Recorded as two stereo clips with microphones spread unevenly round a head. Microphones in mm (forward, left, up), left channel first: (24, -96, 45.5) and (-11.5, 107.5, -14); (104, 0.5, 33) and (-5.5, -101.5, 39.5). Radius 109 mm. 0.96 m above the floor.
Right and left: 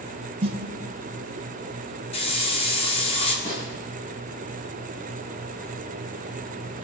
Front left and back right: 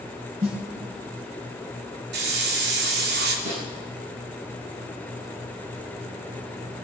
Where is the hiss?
145° right, 1.9 m.